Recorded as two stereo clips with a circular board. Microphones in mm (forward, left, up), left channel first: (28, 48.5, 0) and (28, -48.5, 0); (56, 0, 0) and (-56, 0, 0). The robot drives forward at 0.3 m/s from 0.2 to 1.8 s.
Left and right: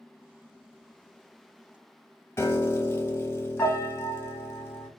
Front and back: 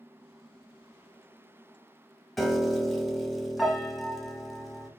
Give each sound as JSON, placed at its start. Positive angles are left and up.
{"t": 2.4, "sound": "a piano", "azimuth_deg": 90, "distance_m": 0.5}